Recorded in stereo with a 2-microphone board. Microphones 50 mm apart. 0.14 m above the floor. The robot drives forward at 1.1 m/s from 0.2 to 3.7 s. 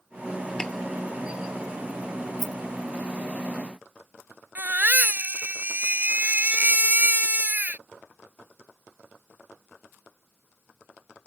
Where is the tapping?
15° left (ahead or behind).